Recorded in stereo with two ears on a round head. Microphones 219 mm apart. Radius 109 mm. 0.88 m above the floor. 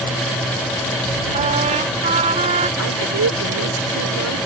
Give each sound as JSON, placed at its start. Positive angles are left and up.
{"t": 1.3, "sound": "a trumpet", "side_deg": -30}
{"t": 2.8, "sound": "a woman speaking", "side_deg": -70}